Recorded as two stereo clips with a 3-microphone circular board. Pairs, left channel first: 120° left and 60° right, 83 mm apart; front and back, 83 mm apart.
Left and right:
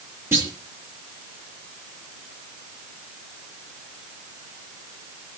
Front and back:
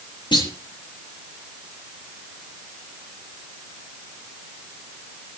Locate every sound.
0.3 s a clunk: 5° right, 4.5 m